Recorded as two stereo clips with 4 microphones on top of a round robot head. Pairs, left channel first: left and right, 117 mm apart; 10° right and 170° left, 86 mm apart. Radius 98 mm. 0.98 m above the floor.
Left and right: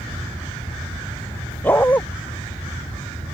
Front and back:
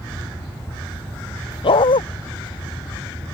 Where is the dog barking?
10° left.